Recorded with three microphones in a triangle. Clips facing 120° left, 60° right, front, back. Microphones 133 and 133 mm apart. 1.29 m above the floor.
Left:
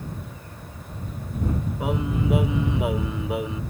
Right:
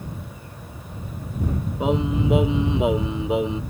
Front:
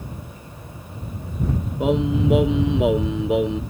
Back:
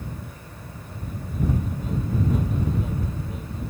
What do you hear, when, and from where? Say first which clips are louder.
1.8 s singing: right 5 dB, front 8 dB; 10° left